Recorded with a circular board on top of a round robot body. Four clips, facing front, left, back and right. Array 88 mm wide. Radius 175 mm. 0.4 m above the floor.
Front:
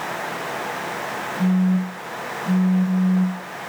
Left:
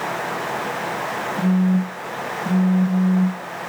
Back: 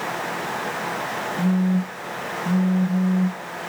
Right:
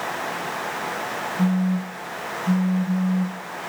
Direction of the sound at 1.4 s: 110° left.